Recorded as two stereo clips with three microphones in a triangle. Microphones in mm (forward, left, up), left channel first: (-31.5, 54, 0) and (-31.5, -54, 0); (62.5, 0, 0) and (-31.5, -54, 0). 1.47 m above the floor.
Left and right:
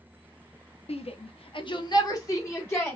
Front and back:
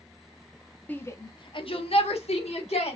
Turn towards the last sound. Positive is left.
turn(degrees=20)